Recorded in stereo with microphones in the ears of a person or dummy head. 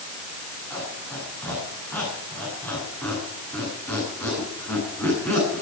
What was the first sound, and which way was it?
A squeak, 5° left (ahead or behind).